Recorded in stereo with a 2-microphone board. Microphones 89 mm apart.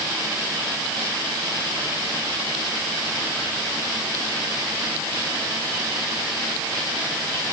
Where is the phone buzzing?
I don't hear a phone buzzing.